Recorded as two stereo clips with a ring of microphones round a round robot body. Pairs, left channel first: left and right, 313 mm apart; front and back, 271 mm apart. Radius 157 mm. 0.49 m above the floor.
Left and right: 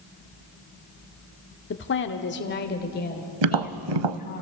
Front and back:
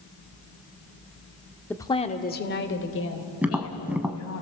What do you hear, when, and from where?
1.7 s a woman speaking: 80° left, 1.4 m; by 4.4 s 25° left, 4.5 m
3.4 s tapping: 95° right, 0.8 m